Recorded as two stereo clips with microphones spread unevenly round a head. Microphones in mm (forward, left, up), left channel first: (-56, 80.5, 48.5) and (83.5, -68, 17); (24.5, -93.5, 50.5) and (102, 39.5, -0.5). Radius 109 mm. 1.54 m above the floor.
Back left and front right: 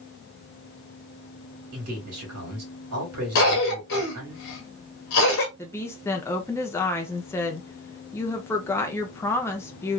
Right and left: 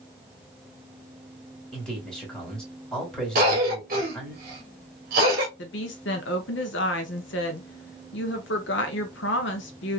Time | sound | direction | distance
1.7 | a man speaking | 45° right | 1.7 m
3.4 | a cough | 110° left | 0.9 m
5.6 | a woman speaking | 150° right | 0.5 m